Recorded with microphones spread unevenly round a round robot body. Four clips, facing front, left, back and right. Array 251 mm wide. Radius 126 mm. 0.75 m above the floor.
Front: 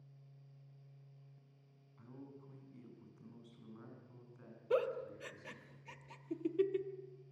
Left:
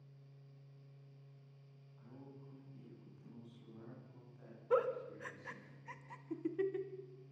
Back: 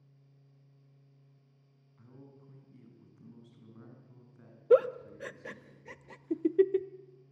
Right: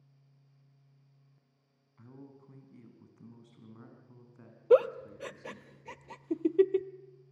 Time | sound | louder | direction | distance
2.0 | a man speaking | right 4 dB, front 1 dB | 110° right | 6 m
4.7 | a giggle | right 11 dB, back 11 dB | 140° right | 0.7 m